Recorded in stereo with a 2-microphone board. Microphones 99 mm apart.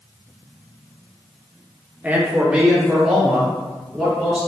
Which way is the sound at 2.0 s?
15° right (ahead or behind).